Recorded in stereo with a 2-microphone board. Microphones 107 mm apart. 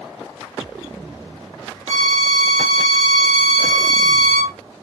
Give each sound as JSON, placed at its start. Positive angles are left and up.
{"t": 1.9, "sound": "a violin", "side_deg": -80, "distance_m": 0.8}